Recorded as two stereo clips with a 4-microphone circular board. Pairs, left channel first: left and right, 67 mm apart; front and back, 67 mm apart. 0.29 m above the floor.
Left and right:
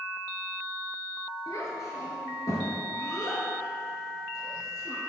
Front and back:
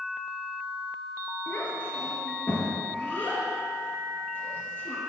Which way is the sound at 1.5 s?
60° left.